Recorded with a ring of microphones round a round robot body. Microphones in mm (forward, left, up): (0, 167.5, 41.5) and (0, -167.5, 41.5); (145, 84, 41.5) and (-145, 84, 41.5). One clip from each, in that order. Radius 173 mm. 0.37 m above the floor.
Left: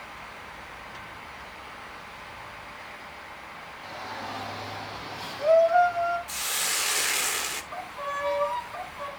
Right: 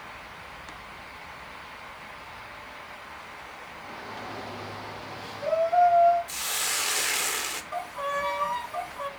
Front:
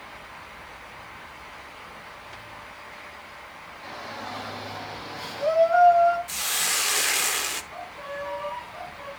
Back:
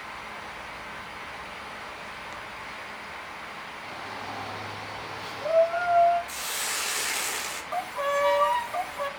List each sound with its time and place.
3.8 s a shout: 30° left, 7 m; by 6.2 s 25° left, 5.5 m
6.3 s a hiss: 5° left, 0.9 m
7.7 s a violin: 170° right, 0.8 m